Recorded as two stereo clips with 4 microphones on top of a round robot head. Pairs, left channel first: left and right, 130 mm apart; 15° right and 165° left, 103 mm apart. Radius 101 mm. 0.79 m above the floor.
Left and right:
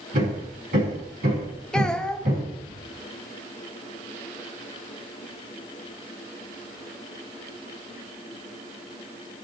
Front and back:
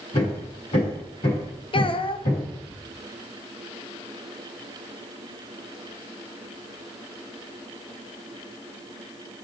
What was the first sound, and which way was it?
Hammering, 60° right.